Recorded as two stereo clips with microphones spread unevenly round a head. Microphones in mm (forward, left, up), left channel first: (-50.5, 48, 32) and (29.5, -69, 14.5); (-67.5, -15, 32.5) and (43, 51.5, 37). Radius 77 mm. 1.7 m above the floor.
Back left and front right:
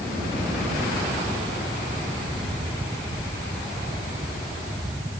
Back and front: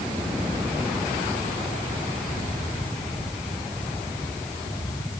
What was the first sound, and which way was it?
Only background noise.